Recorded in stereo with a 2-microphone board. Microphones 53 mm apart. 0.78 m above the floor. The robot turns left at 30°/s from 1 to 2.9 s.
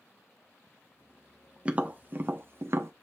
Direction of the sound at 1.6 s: 25° right (ahead or behind).